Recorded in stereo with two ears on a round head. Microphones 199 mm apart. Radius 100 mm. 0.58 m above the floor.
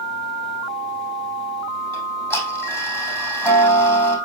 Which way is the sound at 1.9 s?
10° left (ahead or behind).